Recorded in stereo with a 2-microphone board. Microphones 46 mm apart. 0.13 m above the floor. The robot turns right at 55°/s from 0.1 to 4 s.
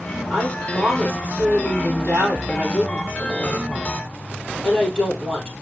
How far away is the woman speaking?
About 3 m.